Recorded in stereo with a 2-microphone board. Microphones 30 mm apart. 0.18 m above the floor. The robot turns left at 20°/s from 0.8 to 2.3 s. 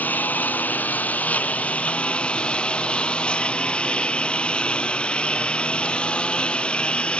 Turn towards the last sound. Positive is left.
turn(degrees=40)  # may be behind; listen again after turning